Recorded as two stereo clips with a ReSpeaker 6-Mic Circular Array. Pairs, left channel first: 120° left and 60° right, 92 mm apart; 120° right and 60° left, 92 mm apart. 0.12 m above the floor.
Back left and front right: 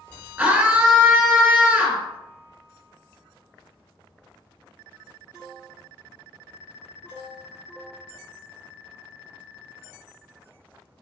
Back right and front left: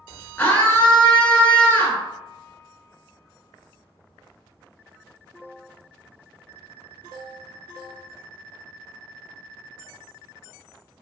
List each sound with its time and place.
0.4 s a scream: 90° right, 1.5 m